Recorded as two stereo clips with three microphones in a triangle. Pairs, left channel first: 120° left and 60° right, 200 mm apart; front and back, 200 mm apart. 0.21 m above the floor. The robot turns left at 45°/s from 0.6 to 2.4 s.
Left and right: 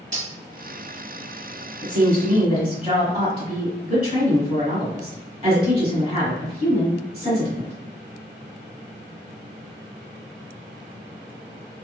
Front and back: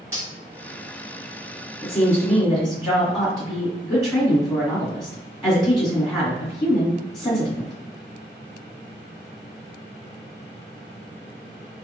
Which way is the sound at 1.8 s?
55° right.